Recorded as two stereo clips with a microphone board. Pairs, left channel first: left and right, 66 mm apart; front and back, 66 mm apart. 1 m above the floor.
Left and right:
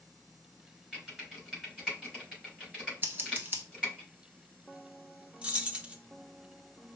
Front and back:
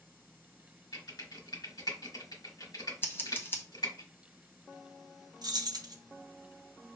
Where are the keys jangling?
160° right, 0.7 m.